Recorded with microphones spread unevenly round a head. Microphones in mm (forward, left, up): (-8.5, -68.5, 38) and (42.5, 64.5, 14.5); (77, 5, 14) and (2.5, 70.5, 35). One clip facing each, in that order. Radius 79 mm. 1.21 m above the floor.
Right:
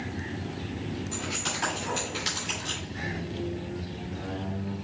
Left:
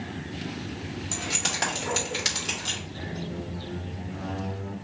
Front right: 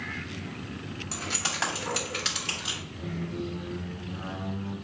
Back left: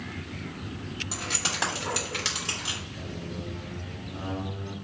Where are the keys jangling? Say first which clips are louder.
Even, even; 65° left, 2.5 m; by 2.8 s 90° left, 2.5 m.